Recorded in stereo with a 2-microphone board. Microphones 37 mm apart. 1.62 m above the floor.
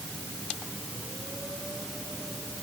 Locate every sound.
Only background noise.